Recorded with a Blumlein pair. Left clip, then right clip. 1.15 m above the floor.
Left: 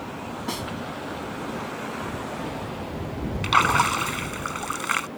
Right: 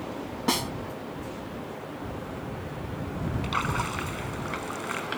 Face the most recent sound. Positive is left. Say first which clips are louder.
# left 11 dB
turn(degrees=25)